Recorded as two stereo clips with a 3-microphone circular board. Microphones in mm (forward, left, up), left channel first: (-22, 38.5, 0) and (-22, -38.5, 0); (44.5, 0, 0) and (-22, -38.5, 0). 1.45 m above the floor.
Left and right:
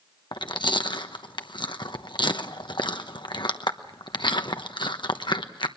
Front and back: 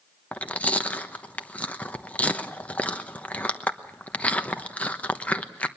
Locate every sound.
0.3 s chewing: 100° left, 1.0 m